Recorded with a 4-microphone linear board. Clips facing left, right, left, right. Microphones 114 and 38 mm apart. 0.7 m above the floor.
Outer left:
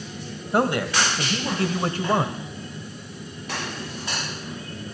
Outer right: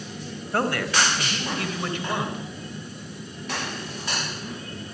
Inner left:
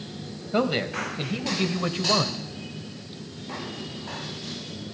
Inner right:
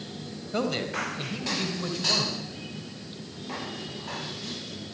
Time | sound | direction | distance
0.5 | a man speaking | 20° left (ahead or behind) | 3.5 m